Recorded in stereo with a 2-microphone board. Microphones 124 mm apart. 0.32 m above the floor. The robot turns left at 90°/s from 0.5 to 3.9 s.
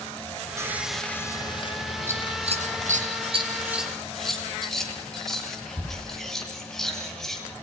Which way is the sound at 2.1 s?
20° right (ahead or behind).